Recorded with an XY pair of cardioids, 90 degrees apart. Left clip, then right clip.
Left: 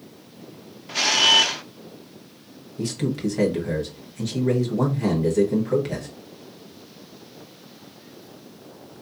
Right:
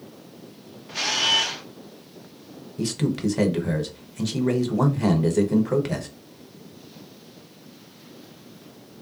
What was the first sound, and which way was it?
A camera shutter, 45° left.